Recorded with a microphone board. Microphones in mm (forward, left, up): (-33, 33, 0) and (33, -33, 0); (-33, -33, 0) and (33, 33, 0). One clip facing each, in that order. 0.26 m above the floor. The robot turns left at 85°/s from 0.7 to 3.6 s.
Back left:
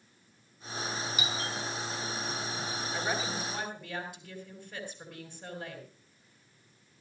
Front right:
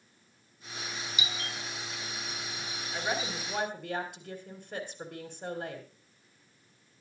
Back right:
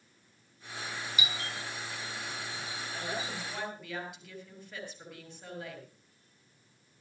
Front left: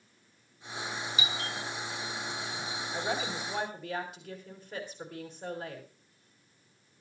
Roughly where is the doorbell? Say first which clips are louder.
Back left 3 dB, front left 2 dB; left.